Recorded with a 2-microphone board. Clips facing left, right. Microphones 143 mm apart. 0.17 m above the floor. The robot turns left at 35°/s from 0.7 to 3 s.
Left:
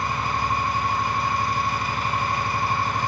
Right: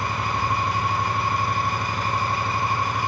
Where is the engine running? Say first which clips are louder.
Even; 90° right, 2.5 m; by 3.1 s 170° right, 2.5 m.